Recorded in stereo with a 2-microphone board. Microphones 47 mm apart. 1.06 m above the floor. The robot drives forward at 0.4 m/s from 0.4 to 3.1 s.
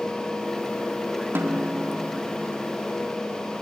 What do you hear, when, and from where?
1.4 s a snare drum: 50° right (ahead or behind), 1.6 m; by 1.9 s 45° right (ahead or behind), 1.8 m